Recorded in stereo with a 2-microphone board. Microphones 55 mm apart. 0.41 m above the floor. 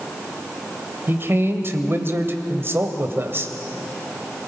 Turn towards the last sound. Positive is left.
turn(degrees=-45)  # may be behind; listen again after turning